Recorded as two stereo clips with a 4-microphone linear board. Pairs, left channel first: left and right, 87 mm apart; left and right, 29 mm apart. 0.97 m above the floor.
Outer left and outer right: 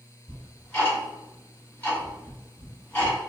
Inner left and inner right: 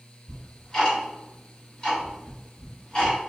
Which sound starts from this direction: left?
Ticking, at 0.3 s.